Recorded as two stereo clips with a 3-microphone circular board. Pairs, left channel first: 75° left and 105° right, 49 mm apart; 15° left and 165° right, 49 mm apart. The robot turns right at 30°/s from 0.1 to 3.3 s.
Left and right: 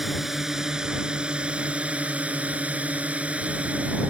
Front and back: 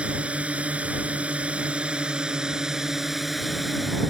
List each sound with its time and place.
0.0 s a drone: 175° left; by 4.1 s 80° right